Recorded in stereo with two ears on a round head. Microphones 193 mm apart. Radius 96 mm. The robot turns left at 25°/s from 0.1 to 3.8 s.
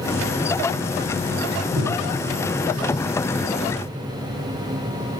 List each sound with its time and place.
1.8 s breathing: 50° right (ahead or behind), 8 m; by 2.1 s 60° right (ahead or behind), 8 m